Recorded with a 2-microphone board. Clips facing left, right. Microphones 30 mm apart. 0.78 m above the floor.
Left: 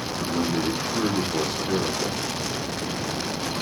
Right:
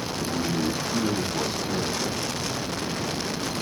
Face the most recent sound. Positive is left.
turn(degrees=70)  # may be behind; listen again after turning